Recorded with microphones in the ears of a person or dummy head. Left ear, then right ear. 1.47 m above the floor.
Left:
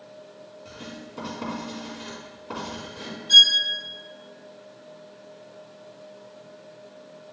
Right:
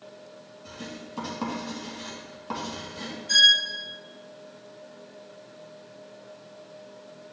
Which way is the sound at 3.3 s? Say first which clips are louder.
Left 3 dB; 55° right (ahead or behind).